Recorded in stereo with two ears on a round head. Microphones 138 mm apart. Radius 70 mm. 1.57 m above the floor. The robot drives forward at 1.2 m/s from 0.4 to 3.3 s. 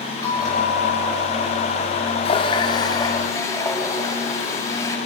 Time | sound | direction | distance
0.2 | a bell | 25° left (ahead or behind) | 6 m
2.2 | a running tap | 40° left (ahead or behind) | 1.4 m